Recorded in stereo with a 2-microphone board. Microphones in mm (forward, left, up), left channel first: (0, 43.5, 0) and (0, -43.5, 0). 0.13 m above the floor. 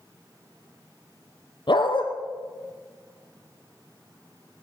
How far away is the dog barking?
About 1.6 m.